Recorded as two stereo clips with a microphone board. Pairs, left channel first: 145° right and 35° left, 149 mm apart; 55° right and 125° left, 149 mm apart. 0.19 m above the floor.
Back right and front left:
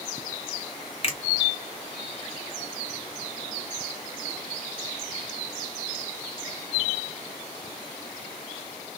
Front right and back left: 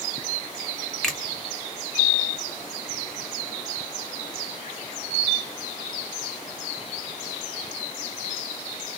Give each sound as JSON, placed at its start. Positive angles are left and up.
{"t": 1.0, "sound": "a finger snap", "azimuth_deg": -140, "distance_m": 1.1}